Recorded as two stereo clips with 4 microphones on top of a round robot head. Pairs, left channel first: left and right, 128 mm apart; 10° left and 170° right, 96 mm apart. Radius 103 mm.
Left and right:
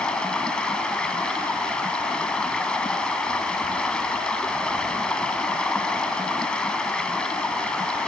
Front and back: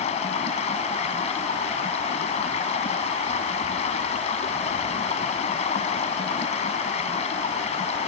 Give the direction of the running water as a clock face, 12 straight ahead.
12 o'clock.